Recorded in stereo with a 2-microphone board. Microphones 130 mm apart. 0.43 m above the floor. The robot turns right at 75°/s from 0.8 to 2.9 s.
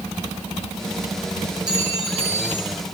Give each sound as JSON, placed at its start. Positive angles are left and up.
{"t": 1.7, "sound": "a clink", "azimuth_deg": -175, "distance_m": 6.0}